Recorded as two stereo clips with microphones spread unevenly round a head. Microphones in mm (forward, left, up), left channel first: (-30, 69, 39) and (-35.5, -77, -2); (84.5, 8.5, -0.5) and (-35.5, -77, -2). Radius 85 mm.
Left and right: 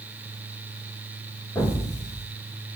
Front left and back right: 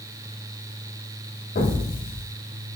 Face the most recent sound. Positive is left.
turn(degrees=15)